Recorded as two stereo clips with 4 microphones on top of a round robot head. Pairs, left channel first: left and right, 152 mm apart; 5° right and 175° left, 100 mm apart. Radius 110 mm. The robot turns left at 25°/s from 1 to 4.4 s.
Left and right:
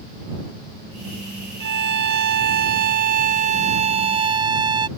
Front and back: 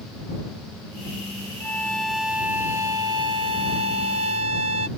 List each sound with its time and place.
1.6 s a violin: 80° right; by 4.9 s 150° right